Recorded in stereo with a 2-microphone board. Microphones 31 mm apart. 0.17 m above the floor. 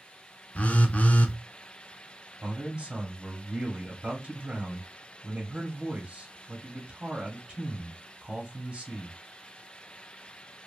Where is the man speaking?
25° right (ahead or behind), 1.1 m.